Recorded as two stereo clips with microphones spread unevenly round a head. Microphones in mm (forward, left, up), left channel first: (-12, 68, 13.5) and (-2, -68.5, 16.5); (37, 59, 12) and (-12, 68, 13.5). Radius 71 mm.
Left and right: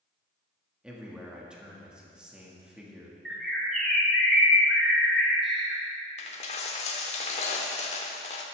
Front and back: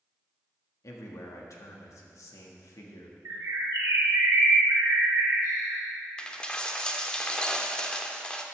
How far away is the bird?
About 2.0 m.